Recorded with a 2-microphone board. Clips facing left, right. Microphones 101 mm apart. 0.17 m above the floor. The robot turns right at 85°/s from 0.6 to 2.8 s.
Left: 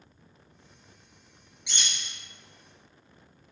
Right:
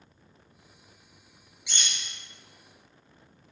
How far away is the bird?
About 0.8 m.